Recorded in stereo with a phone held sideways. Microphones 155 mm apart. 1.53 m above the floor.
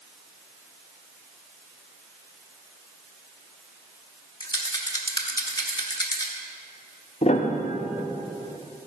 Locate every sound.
4.4 s a rattle: 25° left (ahead or behind), 1.1 m
7.2 s a piano: 40° left (ahead or behind), 0.7 m